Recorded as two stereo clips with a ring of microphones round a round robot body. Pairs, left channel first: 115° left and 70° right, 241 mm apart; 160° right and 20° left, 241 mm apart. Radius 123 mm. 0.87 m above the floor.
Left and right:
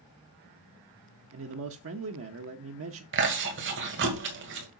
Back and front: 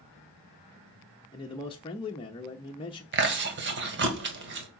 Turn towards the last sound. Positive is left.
turn(degrees=-25)